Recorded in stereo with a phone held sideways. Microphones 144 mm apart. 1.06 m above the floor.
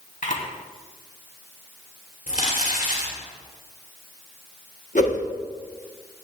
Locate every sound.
0.2 s a camera shutter: 65° left (ahead or behind), 3.5 m
2.3 s crumpling: 70° left (ahead or behind), 4 m
5.0 s a whoosh: 60° left (ahead or behind), 1.6 m